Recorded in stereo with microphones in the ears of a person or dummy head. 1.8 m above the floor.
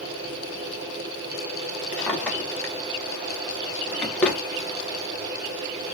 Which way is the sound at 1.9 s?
10° left (ahead or behind).